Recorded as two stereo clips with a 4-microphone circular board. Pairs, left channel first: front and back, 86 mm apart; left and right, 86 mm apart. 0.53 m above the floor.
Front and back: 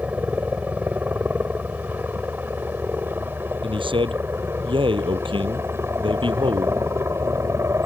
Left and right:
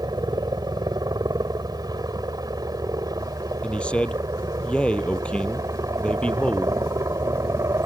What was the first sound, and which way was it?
A helicopter, 110° right.